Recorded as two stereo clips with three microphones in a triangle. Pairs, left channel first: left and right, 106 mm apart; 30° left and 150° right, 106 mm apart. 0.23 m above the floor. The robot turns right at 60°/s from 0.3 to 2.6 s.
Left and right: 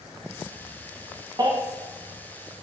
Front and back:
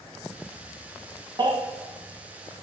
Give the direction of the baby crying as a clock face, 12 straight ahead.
4 o'clock.